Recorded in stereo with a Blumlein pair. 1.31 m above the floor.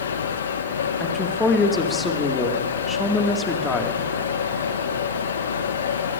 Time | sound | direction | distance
0.0 | a machine running | 65° left | 0.9 m
1.0 | a woman speaking | 15° left | 2 m